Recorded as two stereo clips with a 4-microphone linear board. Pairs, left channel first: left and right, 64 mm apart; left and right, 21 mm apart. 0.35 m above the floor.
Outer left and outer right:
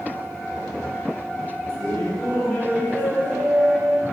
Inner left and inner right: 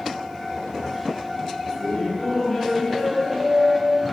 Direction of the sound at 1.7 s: 10° left (ahead or behind).